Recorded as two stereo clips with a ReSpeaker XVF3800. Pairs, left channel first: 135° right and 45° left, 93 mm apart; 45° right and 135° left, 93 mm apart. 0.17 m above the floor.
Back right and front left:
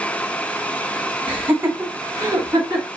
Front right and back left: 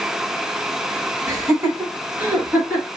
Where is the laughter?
110° left, 1.2 m; by 2.9 s 65° left, 1.6 m.